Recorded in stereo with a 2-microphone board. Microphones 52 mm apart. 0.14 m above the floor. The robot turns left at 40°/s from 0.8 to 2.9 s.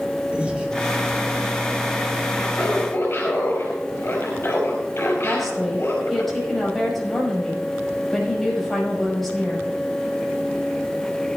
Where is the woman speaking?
5° left (ahead or behind), 5.5 m.